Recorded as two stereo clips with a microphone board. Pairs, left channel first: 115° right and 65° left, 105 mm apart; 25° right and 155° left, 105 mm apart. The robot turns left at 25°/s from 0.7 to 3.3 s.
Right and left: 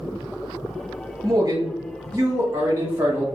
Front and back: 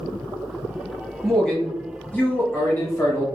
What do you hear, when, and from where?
1.2 s a man speaking: 60° left, 1.2 m; by 3.3 s 10° left, 1.2 m